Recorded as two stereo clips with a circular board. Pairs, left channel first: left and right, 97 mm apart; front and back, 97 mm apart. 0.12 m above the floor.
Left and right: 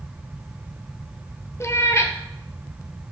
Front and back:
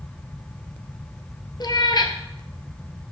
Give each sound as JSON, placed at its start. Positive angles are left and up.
{"t": 1.6, "sound": "a cat meowing", "azimuth_deg": 35, "distance_m": 0.7}